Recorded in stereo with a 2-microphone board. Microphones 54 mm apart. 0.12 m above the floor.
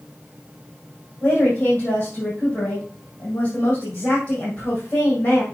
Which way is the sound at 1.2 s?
30° left (ahead or behind).